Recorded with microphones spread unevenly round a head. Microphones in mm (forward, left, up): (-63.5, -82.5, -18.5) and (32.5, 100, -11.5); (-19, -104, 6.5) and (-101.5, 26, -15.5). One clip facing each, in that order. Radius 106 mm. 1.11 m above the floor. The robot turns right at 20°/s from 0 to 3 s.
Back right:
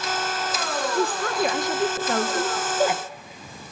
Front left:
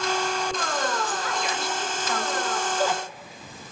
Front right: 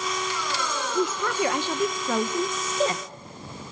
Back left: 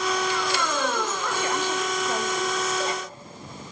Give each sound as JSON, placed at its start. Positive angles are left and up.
{"t": 0.9, "sound": "a woman speaking", "azimuth_deg": -85, "distance_m": 1.1}